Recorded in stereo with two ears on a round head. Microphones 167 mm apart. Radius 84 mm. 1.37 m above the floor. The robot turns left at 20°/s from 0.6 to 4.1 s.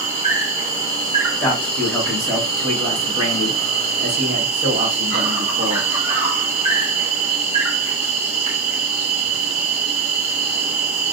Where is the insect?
30° right, 1.1 m; by 11.1 s 100° right, 1.1 m.